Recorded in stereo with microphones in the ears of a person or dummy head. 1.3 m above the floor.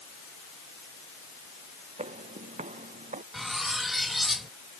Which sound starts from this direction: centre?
Cutlery clinking, at 3.3 s.